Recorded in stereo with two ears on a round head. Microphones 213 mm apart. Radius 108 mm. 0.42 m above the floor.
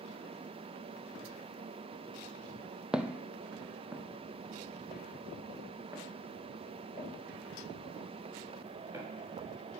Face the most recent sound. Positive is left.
turn(degrees=-15)  # may be behind; listen again after turning